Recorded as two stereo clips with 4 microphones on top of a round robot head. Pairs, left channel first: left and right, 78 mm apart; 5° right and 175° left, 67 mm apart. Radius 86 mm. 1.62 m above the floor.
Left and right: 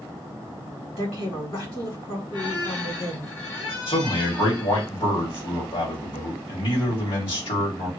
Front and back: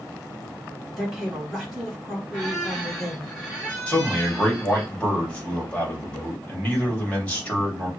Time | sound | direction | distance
1.0 | a woman speaking | 80° left | 3 m
2.3 | a squeak | 80° left | 2.5 m
3.9 | a man speaking | 65° left | 2.5 m